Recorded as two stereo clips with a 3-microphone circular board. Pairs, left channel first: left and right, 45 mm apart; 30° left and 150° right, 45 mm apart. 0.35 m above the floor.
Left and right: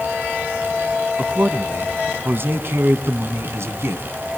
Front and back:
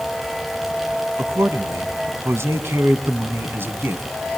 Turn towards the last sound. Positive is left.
turn(degrees=-105)